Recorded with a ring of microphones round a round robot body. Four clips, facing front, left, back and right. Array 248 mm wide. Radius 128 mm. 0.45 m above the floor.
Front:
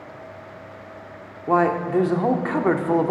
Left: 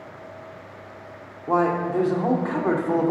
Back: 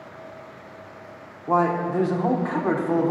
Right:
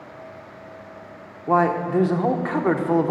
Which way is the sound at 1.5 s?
35° right.